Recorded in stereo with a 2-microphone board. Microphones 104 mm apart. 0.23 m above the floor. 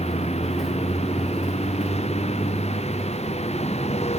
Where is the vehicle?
75° left (ahead or behind); by 4.2 s 80° left.